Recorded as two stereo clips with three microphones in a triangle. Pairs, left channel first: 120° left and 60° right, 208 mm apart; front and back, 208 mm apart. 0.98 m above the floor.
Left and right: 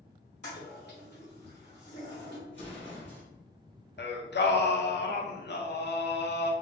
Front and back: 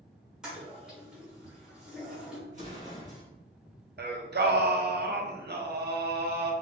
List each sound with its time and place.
0.4 s a toilet flushing: 95° left, 1.3 m
2.5 s an explosion: 130° left, 1.5 m
4.0 s singing: 145° left, 0.5 m